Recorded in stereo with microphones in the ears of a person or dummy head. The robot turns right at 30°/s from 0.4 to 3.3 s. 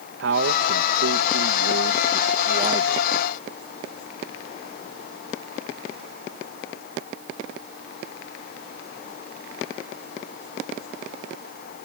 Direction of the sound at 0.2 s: 105° right.